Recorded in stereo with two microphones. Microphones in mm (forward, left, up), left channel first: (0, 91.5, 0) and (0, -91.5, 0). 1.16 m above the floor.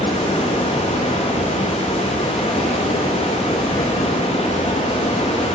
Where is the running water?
35° left (ahead or behind), 1.0 m.